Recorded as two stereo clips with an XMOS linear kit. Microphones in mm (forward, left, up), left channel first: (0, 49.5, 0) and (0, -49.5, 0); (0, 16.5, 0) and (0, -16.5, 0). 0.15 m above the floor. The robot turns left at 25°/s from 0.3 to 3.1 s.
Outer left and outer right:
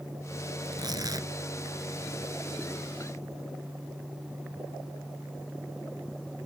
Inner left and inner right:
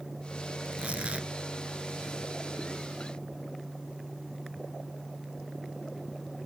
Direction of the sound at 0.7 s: 45° right (ahead or behind).